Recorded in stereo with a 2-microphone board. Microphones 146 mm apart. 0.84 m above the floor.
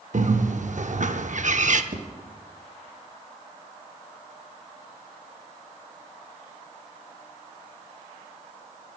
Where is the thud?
70° right (ahead or behind), 2.5 m.